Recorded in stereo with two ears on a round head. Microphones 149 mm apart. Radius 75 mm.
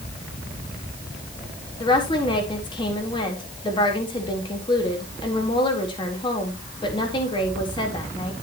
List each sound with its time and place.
1.8 s a woman speaking: 30° left (ahead or behind), 4 m